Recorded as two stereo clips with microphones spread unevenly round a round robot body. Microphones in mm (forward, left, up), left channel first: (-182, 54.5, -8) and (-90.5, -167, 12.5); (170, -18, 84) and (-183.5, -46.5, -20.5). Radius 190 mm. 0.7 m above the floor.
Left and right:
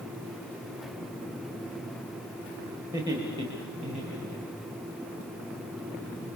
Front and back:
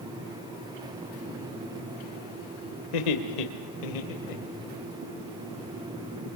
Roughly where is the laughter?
Ahead.